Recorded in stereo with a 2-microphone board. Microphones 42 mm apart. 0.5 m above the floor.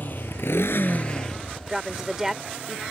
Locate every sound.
0.0 s a motorcycle: 50° left (ahead or behind); by 2.9 s 10° right (ahead or behind)
1.7 s a woman speaking: 10° right (ahead or behind)